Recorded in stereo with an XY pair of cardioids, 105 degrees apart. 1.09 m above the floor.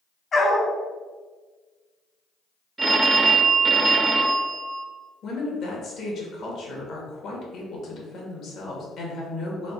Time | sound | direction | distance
0.3 | a dog barking | 40° left | 1.6 m
2.8 | a phone ringing | 25° right | 0.6 m
5.2 | a woman speaking | 60° left | 1.8 m